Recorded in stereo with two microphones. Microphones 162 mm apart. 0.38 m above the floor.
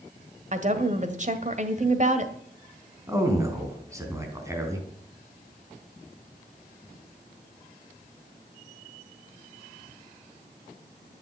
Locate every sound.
0.5 s a woman speaking: 45° right (ahead or behind), 1.8 m
3.1 s a man speaking: 20° right (ahead or behind), 3.5 m